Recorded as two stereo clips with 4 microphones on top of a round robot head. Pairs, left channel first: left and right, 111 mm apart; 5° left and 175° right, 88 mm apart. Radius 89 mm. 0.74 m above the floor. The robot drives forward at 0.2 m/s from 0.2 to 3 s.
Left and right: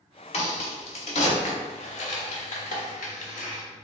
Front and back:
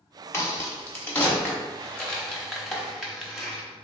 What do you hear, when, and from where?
0.3 s a crack: 65° left, 1.0 m; by 3.6 s 95° left, 0.9 m